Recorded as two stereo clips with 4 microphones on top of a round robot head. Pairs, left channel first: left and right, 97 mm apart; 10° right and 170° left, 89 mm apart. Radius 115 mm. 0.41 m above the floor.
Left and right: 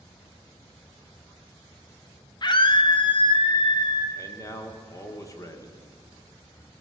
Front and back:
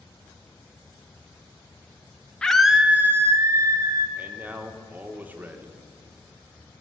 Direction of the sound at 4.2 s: 115° left.